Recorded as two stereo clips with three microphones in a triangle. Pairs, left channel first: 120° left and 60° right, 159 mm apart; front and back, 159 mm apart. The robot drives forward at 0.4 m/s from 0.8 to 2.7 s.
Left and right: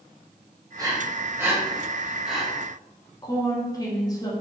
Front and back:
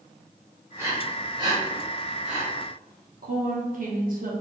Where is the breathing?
115° right, 0.9 m; by 2.4 s 150° right, 1.3 m.